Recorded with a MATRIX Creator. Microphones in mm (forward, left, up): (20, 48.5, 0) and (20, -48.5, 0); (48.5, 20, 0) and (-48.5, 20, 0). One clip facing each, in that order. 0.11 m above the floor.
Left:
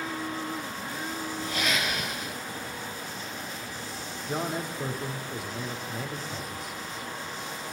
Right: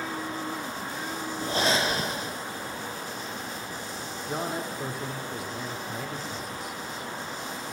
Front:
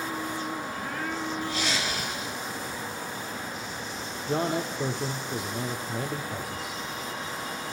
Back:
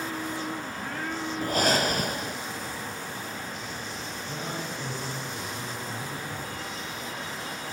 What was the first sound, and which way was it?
Breathing, 145° right.